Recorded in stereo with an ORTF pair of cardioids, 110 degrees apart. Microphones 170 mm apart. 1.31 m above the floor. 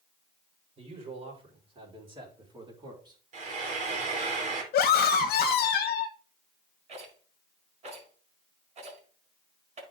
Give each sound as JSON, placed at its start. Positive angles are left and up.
{"t": 0.8, "sound": "a man speaking", "azimuth_deg": -35, "distance_m": 5.0}
{"t": 3.3, "sound": "frying", "azimuth_deg": -45, "distance_m": 4.0}
{"t": 4.7, "sound": "a scream", "azimuth_deg": 65, "distance_m": 1.3}
{"t": 6.9, "sound": "a rattle", "azimuth_deg": -40, "distance_m": 5.0}